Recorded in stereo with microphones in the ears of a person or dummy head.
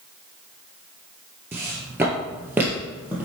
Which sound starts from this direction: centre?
Footsteps, at 1.5 s.